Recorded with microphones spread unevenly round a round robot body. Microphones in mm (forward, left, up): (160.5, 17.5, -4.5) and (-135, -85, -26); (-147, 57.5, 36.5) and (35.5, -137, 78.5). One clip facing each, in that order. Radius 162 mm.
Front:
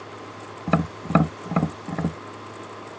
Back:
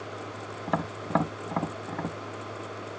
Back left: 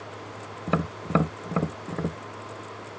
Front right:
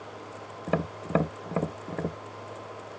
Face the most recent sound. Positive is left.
turn(degrees=60)